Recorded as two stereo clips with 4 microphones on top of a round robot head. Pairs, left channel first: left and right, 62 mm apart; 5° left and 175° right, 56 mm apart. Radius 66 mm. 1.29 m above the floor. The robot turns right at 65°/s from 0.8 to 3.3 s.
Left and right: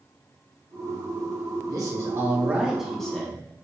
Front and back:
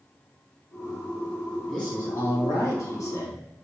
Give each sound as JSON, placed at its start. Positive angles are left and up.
{"t": 1.7, "sound": "a man speaking", "azimuth_deg": -80, "distance_m": 1.8}